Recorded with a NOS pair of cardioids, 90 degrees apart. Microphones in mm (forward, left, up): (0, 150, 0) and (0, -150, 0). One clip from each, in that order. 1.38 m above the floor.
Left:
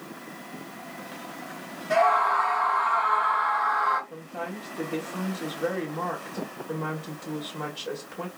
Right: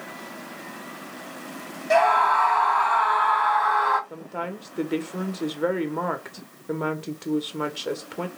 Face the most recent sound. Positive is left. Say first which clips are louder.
# right 3 dB
turn(degrees=-45)